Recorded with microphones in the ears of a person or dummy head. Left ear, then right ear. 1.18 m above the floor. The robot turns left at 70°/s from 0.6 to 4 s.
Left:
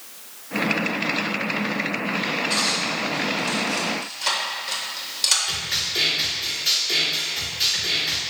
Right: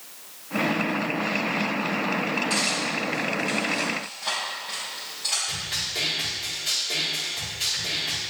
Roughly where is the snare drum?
Left.